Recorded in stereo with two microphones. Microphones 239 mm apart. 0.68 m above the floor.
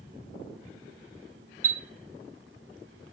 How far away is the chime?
About 1.3 m.